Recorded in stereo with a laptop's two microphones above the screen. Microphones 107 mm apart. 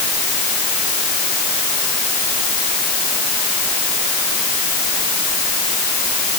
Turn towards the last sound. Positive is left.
No sound to turn to.